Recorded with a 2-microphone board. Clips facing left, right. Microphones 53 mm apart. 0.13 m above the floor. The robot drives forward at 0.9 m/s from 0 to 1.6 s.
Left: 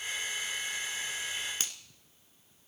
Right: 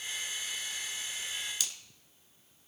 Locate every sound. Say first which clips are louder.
1.6 s a finger snap: left 1 dB; 40° left (ahead or behind), 1.1 m